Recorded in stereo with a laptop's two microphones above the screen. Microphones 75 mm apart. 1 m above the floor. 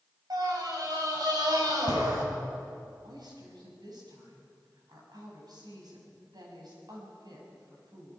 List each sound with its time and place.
0.3 s a scream: 70° right (ahead or behind), 7 m
3.0 s a woman speaking: 75° right (ahead or behind), 6 m